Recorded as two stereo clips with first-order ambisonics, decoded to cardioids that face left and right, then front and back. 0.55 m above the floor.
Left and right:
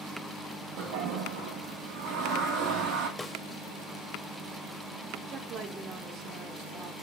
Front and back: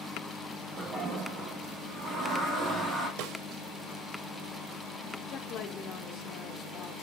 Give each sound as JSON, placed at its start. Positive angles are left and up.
{"t": 0.8, "sound": "a toilet flushing", "azimuth_deg": -115, "distance_m": 3.0}
{"t": 3.2, "sound": "a snare drum", "azimuth_deg": 170, "distance_m": 0.9}
{"t": 5.3, "sound": "a woman speaking", "azimuth_deg": -45, "distance_m": 1.7}